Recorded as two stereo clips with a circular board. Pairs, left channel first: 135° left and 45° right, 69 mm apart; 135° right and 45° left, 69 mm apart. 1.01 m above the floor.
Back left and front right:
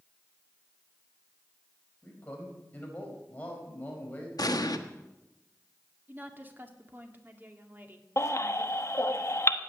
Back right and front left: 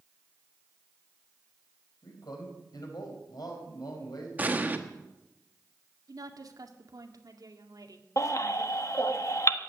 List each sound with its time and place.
2.0 s a man speaking: 160° right, 4.5 m
4.4 s an explosion: 110° left, 1.2 m
6.1 s a woman speaking: 15° left, 2 m
8.2 s a baby crying: straight behind, 1.1 m